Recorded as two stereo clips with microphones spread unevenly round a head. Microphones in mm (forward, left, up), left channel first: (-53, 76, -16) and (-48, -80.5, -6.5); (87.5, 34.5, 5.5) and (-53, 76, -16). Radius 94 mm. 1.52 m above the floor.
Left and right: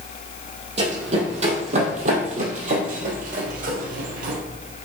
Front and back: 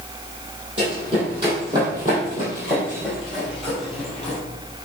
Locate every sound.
0.8 s running footsteps: 135° right, 3.5 m; by 4.4 s 95° right, 2.5 m